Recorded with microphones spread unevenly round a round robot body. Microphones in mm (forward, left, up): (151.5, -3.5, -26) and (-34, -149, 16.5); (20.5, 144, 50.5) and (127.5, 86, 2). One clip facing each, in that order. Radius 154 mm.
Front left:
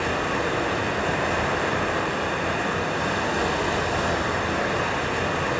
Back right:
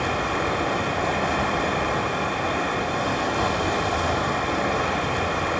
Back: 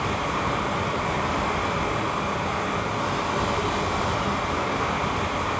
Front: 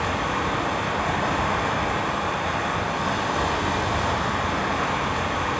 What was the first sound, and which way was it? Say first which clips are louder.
Running water: even, front 1 dB; 40° right.